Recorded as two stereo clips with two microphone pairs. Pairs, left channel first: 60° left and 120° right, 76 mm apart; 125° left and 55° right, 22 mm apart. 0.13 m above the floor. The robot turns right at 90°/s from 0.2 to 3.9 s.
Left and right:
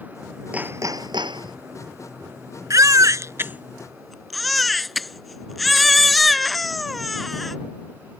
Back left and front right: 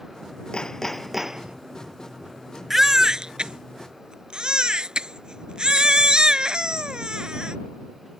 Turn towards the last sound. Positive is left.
turn(degrees=-30)